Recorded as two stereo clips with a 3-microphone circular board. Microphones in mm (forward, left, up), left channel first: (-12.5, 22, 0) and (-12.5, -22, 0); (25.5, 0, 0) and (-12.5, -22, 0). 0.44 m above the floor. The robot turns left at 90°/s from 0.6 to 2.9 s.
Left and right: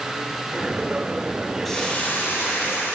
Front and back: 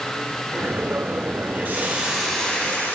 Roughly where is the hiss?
Behind.